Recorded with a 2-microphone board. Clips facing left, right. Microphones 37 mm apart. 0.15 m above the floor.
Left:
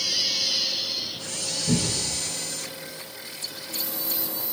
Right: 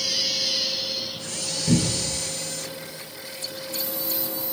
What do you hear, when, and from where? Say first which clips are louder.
1.7 s a cupboard door: right 3 dB; 40° right (ahead or behind), 1.3 m